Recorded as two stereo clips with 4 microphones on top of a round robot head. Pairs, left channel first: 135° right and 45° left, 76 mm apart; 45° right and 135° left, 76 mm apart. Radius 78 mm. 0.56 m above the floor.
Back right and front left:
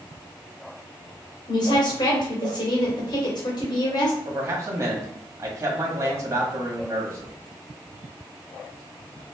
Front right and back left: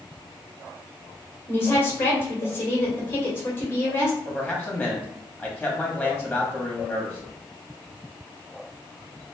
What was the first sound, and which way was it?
A woman speaking, 105° right.